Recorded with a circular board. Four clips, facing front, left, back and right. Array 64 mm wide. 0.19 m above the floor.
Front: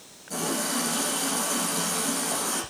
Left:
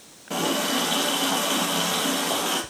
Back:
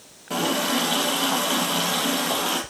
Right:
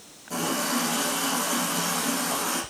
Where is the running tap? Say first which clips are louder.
Left 2 dB, back 6 dB; 145° left, 3.5 m.